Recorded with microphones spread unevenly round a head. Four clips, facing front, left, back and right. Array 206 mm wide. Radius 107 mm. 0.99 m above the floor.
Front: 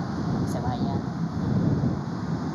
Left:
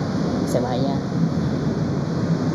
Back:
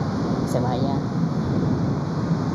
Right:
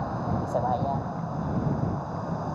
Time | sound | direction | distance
0.0 | a vehicle | 110° left | ?